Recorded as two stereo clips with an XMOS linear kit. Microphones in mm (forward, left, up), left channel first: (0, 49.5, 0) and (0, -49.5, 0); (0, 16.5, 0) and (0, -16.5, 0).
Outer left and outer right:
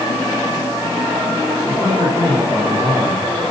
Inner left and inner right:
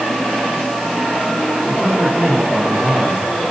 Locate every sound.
1.7 s a man speaking: 15° right (ahead or behind), 6 m